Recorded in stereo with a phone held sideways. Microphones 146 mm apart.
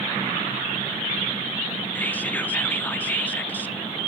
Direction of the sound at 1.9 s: 10° left (ahead or behind).